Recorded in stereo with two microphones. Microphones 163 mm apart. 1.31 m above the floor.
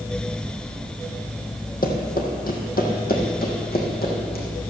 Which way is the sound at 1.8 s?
60° left (ahead or behind).